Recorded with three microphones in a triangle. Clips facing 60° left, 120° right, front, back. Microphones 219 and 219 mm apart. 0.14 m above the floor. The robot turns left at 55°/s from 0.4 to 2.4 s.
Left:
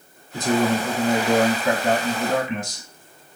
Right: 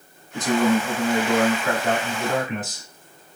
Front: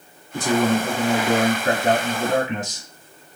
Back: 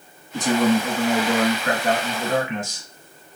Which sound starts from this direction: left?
A man speaking, at 0.3 s.